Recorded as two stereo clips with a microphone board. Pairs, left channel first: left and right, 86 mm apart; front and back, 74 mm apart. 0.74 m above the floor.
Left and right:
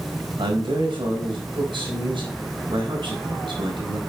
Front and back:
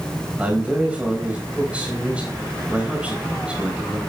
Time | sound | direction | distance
0.4 | a man speaking | 105° right | 4 m